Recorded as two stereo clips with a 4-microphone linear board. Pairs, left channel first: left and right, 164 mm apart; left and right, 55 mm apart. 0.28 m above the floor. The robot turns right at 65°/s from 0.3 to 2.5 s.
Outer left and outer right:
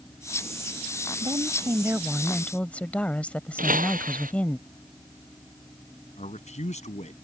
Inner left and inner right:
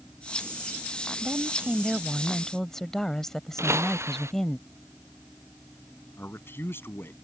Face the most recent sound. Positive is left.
turn(degrees=45)  # may be behind; listen again after turning